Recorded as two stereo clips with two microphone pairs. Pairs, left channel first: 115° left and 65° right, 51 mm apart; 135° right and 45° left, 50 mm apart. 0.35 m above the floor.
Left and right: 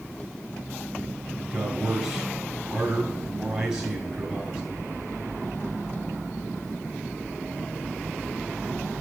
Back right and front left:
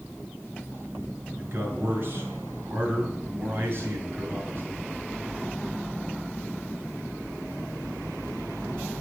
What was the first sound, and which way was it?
A man speaking, 10° left.